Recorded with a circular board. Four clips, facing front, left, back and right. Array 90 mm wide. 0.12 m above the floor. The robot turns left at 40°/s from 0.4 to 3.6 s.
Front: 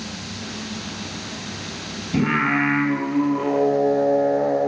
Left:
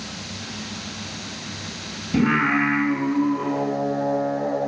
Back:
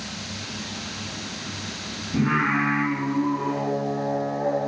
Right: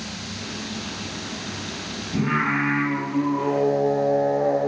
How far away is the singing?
About 0.5 m.